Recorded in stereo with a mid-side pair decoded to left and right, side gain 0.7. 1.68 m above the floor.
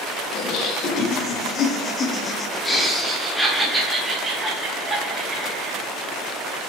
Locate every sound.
0.3 s laughter: 65° left, 1.7 m; by 5.8 s 25° right, 3 m